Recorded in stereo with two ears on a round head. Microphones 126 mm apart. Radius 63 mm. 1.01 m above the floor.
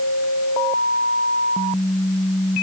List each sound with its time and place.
Only background noise.